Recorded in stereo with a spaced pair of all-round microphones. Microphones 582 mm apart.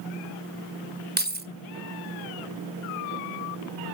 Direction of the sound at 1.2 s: 15° right (ahead or behind).